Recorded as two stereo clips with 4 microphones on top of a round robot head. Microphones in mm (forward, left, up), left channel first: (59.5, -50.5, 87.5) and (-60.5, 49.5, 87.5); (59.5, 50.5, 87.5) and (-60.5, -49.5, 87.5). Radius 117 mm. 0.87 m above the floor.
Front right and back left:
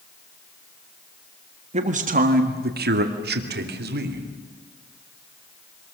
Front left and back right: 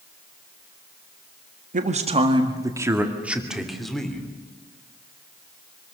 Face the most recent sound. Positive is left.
turn(degrees=125)